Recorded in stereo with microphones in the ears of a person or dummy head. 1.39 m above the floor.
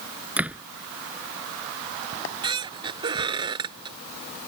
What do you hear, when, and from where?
0.4 s a door slam: 10° right (ahead or behind)
2.1 s a squeak: 30° right (ahead or behind)